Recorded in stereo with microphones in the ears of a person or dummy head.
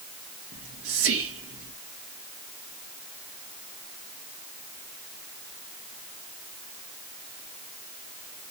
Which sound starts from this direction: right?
Whispering, at 0.5 s.